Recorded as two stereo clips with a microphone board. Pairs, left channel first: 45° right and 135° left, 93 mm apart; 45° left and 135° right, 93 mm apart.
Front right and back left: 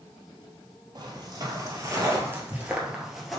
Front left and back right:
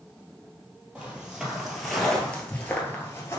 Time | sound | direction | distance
0.9 | footsteps | 150° left | 2 m